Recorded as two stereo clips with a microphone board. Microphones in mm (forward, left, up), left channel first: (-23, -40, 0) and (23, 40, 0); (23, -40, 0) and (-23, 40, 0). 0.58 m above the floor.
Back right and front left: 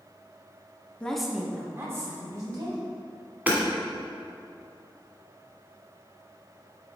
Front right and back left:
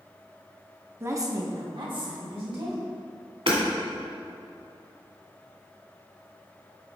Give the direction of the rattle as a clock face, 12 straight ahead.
No rattle in this recording.